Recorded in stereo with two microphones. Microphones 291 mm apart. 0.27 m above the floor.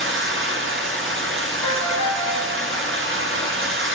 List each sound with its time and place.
0.0 s running water: 45° right (ahead or behind), 1.2 m
1.6 s a ringtone: 85° right, 5 m